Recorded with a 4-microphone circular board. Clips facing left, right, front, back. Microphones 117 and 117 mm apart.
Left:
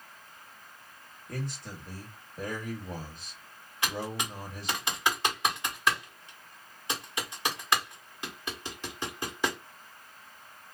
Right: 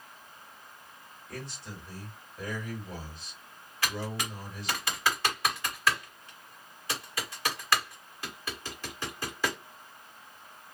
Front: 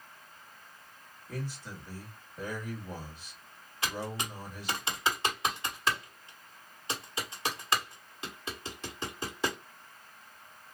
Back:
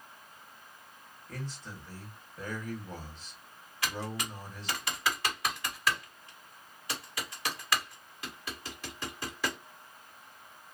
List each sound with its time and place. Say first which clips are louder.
1.3 s a man speaking: left 4 dB, front 3 dB; 75° left, 1.9 m
3.8 s typing on a keyboard: left 1 dB, front 1 dB; 40° left, 1.5 m